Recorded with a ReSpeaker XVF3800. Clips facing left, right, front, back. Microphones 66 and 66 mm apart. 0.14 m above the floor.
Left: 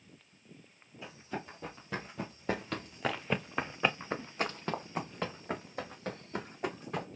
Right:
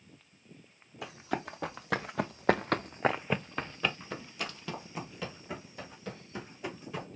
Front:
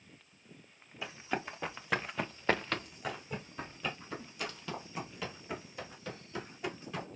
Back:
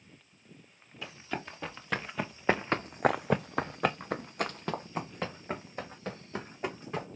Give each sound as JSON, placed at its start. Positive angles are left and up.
{"t": 1.0, "sound": "running footsteps", "azimuth_deg": -75, "distance_m": 1.8}